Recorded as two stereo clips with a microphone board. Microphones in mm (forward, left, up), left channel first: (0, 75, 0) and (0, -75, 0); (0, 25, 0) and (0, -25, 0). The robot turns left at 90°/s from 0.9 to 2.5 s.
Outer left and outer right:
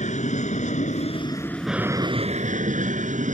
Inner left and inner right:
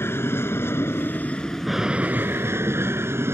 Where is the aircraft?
70° left; by 3.3 s 75° right.